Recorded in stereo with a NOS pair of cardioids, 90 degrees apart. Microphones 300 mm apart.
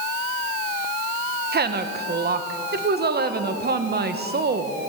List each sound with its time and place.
1.5 s a woman speaking: 35° right, 1.3 m